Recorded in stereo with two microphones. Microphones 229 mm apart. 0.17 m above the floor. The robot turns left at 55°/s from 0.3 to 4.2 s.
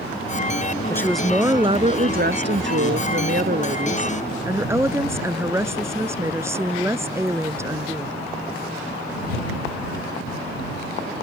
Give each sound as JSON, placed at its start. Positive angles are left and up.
{"t": 0.9, "sound": "a woman speaking", "azimuth_deg": 15}